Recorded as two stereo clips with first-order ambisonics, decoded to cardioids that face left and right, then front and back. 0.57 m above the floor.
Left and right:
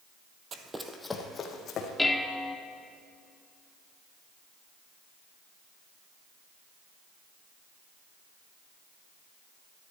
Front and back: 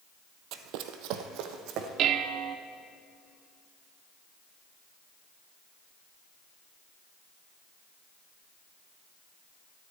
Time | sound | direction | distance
0.5 | running footsteps | 150° right | 1.1 m
2.0 | dishes clattering | 170° left | 0.7 m